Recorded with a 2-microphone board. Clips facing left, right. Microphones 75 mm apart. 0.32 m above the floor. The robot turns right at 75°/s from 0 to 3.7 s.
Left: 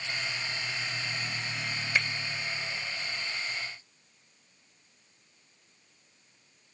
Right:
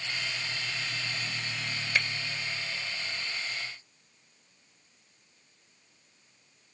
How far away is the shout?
No shout in this recording.